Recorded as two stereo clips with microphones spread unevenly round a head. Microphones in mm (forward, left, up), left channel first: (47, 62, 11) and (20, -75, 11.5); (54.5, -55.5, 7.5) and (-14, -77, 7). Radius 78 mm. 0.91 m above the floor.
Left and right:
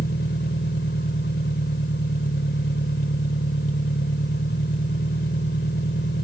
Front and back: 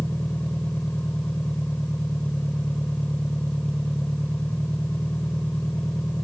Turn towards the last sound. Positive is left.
turn(degrees=100)